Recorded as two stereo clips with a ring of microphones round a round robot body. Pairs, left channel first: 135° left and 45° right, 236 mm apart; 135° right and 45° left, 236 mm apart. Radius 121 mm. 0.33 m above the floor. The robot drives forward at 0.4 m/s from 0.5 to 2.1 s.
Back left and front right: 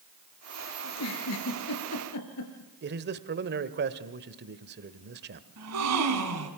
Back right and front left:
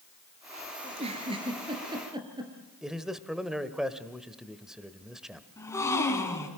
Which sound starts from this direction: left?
A giggle, at 0.8 s.